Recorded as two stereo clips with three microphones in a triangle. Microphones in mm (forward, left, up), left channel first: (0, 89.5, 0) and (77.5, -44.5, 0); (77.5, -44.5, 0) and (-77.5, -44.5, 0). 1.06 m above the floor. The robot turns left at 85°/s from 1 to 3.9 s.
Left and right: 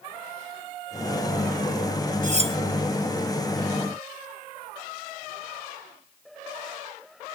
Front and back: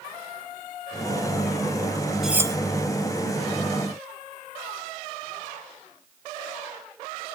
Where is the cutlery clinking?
90° right, 1.1 m; by 2.6 s 120° right, 1.1 m.